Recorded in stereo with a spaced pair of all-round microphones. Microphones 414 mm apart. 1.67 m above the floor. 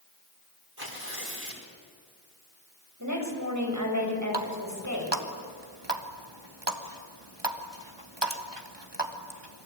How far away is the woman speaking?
About 7.5 m.